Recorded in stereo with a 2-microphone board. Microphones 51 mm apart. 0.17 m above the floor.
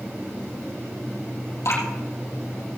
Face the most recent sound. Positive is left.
turn(degrees=70)  # may be behind; listen again after turning